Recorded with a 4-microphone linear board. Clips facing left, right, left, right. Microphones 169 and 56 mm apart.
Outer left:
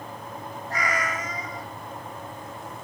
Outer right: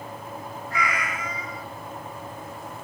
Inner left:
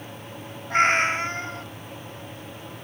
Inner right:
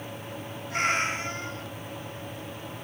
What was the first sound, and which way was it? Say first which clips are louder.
A cat meowing: outer left 1 dB, inner left 7 dB; 40° left (ahead or behind).